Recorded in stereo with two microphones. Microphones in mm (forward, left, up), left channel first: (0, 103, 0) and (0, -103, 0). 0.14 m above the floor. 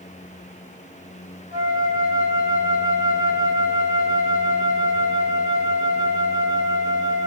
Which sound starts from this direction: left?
A flute, at 1.5 s.